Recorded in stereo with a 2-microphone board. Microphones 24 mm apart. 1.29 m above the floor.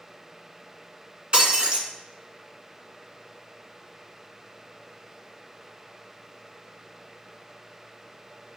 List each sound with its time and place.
1.3 s breaking glass: 45° right (ahead or behind), 1.8 m